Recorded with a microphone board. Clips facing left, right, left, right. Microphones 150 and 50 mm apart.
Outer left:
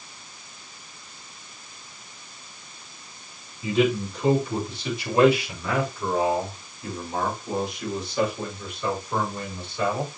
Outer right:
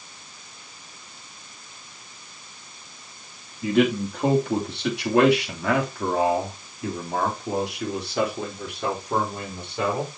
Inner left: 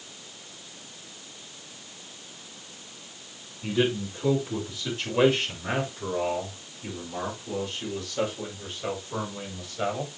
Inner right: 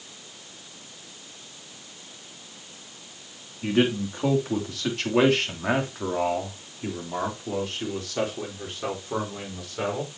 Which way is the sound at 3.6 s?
55° right (ahead or behind).